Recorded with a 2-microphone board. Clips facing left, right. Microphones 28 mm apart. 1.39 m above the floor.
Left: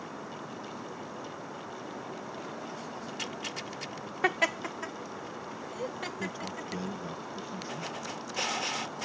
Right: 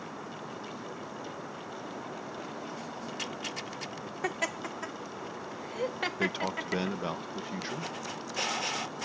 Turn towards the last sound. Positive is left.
turn(degrees=-70)  # may be behind; listen again after turning